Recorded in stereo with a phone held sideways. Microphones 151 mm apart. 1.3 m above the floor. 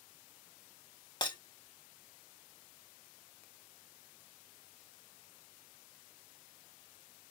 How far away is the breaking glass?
About 1.1 m.